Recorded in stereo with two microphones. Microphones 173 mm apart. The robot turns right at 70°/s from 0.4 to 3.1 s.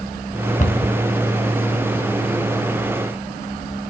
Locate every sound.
0.6 s a cupboard door: 50° left (ahead or behind), 1.7 m; by 0.9 s 70° left (ahead or behind), 1.7 m